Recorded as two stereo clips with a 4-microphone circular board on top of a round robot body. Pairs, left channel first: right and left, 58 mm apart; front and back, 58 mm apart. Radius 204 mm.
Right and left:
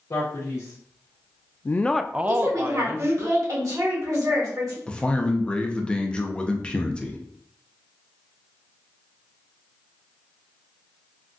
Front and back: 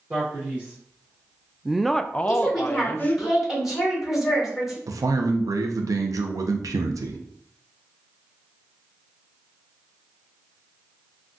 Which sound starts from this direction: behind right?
A man speaking, at 0.1 s.